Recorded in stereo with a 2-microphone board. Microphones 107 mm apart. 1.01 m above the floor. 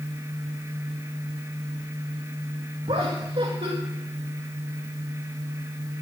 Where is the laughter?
65° right (ahead or behind), 1.8 m.